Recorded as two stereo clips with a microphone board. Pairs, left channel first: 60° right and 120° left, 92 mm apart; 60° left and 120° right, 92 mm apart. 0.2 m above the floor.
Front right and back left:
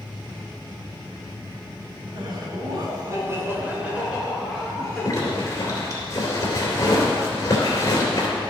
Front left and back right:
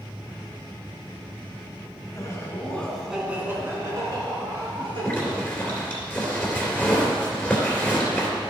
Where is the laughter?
100° left, 2 m; by 5.1 s 150° right, 3.5 m.